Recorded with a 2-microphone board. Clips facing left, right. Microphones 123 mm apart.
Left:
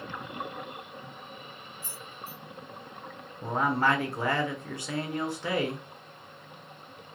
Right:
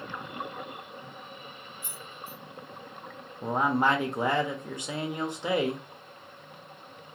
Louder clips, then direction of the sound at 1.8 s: Left 1 dB; 40° left (ahead or behind).